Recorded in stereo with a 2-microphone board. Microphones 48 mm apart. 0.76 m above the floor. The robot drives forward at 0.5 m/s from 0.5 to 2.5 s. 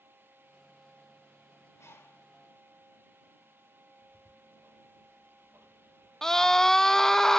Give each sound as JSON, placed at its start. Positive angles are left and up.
{"t": 1.8, "sound": "a bird", "side_deg": 85, "distance_m": 4.0}
{"t": 4.0, "sound": "ticking", "side_deg": -80, "distance_m": 5.5}
{"t": 6.2, "sound": "a scream", "side_deg": 10, "distance_m": 0.5}